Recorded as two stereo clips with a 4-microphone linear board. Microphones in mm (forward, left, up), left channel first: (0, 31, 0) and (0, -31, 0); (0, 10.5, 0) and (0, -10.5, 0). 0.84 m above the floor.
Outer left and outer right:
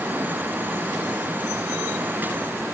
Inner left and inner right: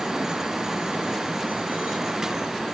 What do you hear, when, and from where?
Only background noise.